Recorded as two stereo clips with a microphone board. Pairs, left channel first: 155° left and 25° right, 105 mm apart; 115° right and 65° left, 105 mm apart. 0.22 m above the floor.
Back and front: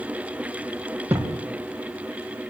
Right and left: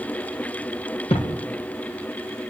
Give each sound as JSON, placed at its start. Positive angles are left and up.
{"t": 1.1, "sound": "a thud", "azimuth_deg": -90, "distance_m": 5.0}